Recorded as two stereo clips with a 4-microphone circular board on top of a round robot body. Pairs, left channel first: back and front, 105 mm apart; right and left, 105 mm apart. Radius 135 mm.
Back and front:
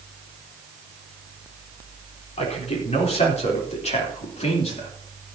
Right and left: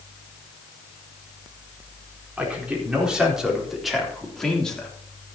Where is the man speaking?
170° left, 4 m; by 4.9 s 170° right, 3 m.